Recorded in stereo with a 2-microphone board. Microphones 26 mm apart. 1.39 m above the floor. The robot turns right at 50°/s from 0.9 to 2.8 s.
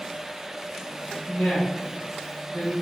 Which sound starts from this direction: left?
A woman speaking, at 1.3 s.